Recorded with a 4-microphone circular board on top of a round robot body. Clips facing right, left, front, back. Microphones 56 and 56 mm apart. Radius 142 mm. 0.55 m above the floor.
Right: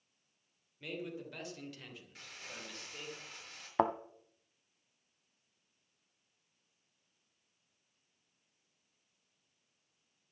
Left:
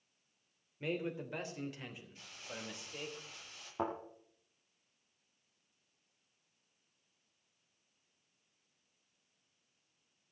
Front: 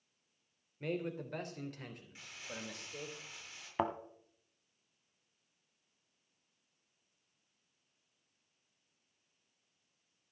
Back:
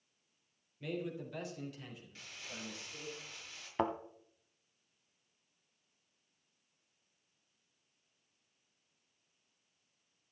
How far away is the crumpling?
About 7 m.